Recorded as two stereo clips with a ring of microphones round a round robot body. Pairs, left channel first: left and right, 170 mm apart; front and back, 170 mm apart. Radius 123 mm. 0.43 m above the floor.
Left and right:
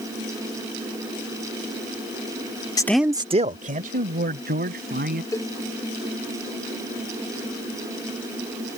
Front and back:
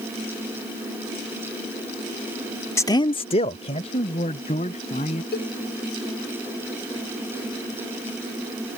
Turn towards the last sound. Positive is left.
turn(degrees=20)